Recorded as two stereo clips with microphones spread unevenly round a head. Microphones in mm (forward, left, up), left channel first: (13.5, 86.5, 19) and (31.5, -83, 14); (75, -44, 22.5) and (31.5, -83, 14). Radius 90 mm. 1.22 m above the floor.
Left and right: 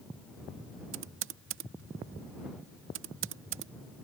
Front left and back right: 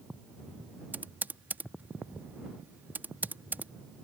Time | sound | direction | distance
0.9 | typing on a keyboard | 80° right | ?